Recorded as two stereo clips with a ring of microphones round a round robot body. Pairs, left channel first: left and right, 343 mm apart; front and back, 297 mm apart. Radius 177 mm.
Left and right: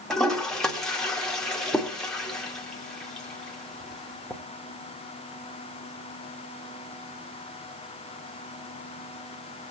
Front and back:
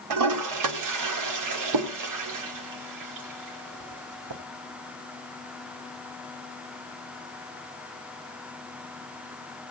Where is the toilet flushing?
Straight behind, 2 m.